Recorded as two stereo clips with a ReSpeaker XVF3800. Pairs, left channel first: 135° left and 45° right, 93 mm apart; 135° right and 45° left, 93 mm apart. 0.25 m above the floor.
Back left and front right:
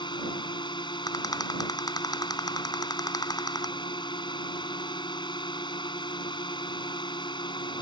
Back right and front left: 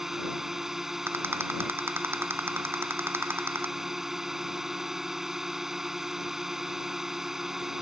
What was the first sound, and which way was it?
A drone, 130° left.